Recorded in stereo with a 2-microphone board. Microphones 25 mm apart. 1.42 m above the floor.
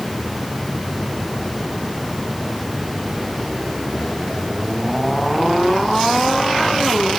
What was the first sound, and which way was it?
Only background noise.